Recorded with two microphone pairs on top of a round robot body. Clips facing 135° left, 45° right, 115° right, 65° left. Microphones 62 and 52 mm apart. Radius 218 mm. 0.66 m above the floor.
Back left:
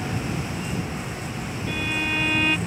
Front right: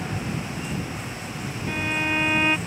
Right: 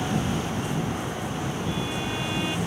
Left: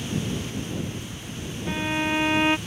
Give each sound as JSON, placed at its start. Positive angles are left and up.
{"t": 0.0, "sound": "a vehicle", "azimuth_deg": -135}
{"t": 1.7, "sound": "a violin", "azimuth_deg": 20}